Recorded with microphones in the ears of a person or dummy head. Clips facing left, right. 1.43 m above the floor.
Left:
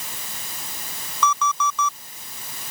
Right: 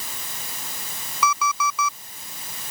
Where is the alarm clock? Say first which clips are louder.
Left 1 dB; 10° right (ahead or behind).